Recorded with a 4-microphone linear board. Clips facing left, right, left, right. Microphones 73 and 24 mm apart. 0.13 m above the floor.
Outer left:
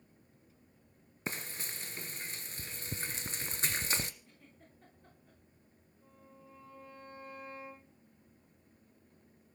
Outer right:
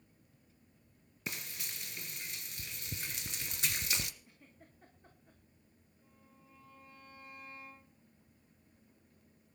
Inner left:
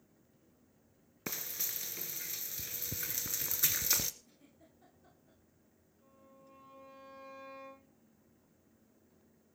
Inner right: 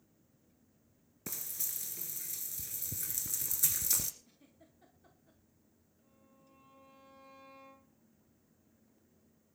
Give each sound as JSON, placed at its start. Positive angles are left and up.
{"t": 1.3, "sound": "frying", "side_deg": 35, "distance_m": 1.7}
{"t": 4.2, "sound": "a giggle", "side_deg": -10, "distance_m": 8.0}
{"t": 6.0, "sound": "a violin", "side_deg": 40, "distance_m": 8.5}